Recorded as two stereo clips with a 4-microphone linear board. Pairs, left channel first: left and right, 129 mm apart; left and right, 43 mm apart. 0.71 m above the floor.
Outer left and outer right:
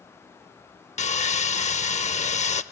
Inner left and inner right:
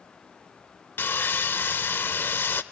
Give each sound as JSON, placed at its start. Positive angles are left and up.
{"t": 1.0, "sound": "sawing", "side_deg": 60, "distance_m": 0.6}